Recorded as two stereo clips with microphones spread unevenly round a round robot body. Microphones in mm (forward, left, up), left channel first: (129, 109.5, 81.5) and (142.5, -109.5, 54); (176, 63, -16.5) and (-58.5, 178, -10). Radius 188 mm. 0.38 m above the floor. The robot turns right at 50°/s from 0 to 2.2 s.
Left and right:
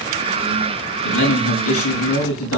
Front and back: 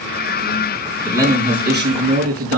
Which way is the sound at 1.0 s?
70° left.